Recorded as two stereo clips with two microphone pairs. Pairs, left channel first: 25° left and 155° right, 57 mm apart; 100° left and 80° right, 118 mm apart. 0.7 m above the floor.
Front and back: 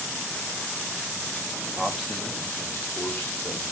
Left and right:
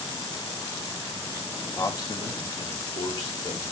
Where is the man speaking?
145° left, 0.6 m; by 3.7 s 75° left, 1.6 m.